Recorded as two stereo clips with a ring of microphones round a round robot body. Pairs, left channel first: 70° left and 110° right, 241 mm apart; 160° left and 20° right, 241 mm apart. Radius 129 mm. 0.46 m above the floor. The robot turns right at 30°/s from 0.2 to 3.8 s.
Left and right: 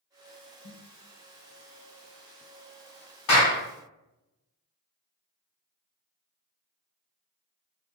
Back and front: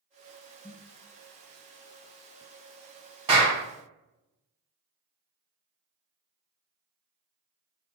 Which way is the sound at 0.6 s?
75° left.